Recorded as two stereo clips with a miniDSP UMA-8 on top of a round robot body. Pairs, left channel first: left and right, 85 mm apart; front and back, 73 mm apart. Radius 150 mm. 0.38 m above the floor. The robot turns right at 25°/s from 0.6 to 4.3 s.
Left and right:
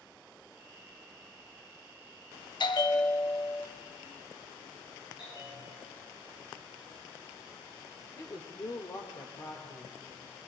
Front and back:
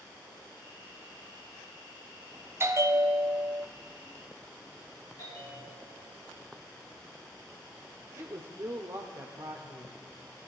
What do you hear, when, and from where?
2.6 s a bell: 120° left, 0.9 m; by 3.7 s 150° left, 0.9 m
5.2 s a bell: 50° left, 8 m
8.2 s a woman speaking: 135° left, 1.5 m